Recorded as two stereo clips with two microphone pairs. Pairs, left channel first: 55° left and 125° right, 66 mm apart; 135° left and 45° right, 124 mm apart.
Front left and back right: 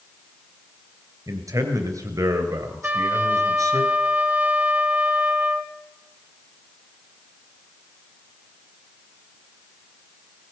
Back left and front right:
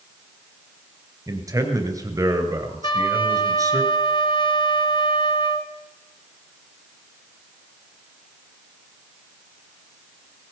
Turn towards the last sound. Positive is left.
turn(degrees=175)